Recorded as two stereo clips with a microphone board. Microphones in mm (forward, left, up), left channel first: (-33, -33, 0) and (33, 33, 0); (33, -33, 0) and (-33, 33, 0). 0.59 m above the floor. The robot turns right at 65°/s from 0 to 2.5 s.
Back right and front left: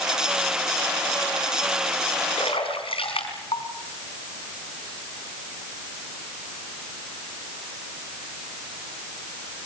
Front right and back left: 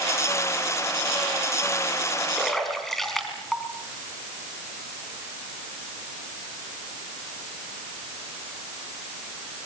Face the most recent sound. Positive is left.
turn(degrees=-130)